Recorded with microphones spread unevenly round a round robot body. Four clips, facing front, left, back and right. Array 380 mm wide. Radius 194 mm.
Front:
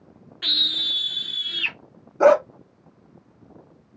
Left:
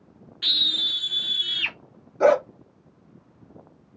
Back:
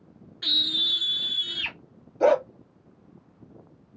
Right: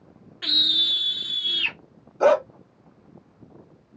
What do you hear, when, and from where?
0.4 s a scream: 50° right, 0.7 m; by 1.8 s 170° left, 1.1 m
2.2 s a dog barking: 15° left, 1.5 m